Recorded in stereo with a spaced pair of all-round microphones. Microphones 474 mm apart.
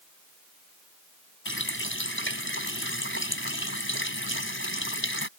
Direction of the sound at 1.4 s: 25° left (ahead or behind).